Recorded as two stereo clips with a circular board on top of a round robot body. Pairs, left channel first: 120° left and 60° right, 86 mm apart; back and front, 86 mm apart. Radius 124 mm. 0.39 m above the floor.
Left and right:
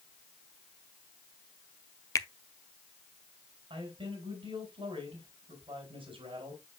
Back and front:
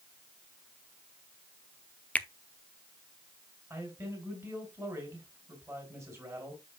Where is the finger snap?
120° left, 0.9 m.